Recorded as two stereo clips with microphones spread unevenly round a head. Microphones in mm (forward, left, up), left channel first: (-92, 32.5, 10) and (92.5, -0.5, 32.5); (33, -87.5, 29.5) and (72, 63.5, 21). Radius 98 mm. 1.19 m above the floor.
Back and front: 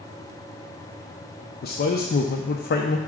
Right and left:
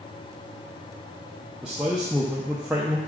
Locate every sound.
1.6 s a man speaking: 160° left, 0.6 m